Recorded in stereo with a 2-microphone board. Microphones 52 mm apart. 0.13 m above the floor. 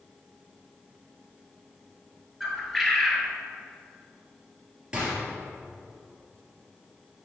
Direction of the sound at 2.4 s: 5° left (ahead or behind).